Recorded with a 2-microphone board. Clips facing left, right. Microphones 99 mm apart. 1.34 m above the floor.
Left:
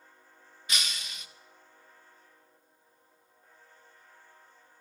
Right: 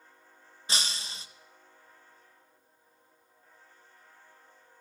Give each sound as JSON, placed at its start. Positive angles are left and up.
{"t": 0.7, "sound": "breaking glass", "side_deg": -30, "distance_m": 0.5}